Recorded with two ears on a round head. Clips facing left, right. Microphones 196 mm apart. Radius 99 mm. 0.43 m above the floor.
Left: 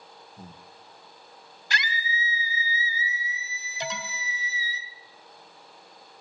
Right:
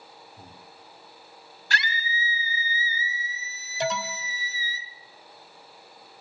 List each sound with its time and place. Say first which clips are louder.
0.4 s breathing: left 5 dB; 10° left (ahead or behind), 0.9 m
1.7 s a scream: right 1 dB; 15° left (ahead or behind), 2.0 m
3.8 s an alarm: right 7 dB; 45° right (ahead or behind), 2 m